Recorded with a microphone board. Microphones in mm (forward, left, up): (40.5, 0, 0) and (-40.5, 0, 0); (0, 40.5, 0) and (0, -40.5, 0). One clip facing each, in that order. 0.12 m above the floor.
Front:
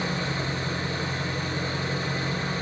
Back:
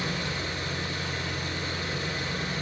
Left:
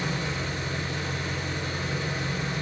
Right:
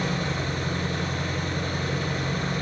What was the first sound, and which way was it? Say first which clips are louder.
An engine running: front 3 dB, right 3 dB; 60° right.